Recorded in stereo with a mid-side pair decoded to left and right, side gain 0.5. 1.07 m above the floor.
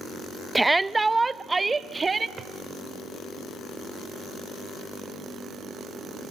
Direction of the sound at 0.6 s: 10° right.